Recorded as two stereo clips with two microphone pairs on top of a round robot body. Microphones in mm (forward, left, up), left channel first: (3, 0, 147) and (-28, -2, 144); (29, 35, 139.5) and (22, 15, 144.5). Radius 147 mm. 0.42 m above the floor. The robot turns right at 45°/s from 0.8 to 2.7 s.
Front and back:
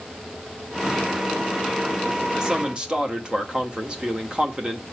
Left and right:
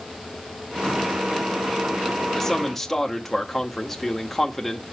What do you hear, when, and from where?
2.4 s a man speaking: 125° left, 1.7 m; by 4.8 s 140° left, 1.7 m